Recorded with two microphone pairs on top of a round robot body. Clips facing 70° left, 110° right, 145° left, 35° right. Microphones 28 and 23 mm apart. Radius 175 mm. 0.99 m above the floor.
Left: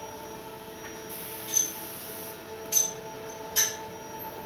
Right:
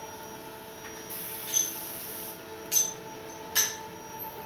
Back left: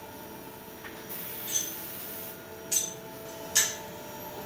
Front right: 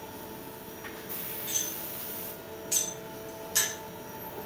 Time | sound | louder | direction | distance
1.5 | cutlery clinking | left 1 dB, even | 125° right | 0.8 m